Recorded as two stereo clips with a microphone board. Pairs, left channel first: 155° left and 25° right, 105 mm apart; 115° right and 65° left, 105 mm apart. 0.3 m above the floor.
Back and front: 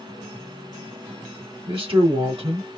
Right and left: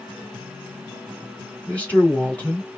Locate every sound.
1.7 s a man speaking: 35° right, 2.5 m